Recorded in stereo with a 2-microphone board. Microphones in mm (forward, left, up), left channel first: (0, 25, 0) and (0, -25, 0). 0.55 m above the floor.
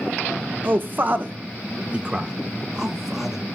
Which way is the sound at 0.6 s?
40° right (ahead or behind).